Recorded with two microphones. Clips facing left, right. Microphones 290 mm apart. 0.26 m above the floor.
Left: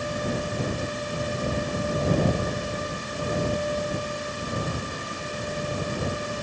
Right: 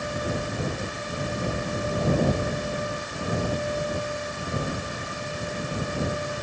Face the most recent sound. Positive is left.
No sound to turn to.